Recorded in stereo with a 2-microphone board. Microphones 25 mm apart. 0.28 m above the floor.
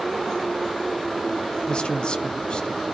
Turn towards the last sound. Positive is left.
turn(degrees=45)  # may be behind; listen again after turning